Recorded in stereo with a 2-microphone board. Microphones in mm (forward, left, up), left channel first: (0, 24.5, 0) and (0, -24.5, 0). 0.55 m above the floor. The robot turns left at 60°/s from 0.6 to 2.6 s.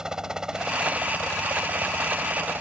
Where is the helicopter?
15° right; by 2.6 s 135° right.